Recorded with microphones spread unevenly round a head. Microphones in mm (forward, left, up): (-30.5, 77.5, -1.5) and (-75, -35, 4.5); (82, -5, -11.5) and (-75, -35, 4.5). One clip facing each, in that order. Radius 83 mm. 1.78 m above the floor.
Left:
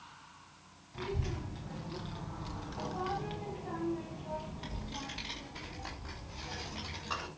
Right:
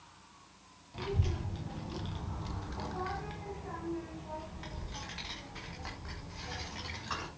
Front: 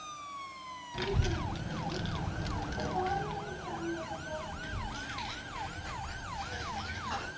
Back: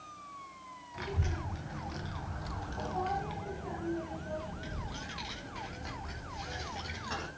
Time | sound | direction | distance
0.9 | a child speaking | 40° right | 1.7 m